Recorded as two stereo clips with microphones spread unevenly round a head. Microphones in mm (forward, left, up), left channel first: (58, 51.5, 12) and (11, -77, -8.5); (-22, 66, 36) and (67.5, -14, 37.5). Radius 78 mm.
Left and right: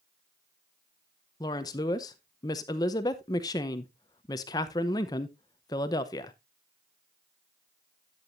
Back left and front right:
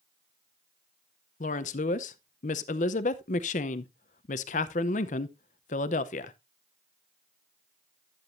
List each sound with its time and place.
1.4 s a woman speaking: 130° left, 0.6 m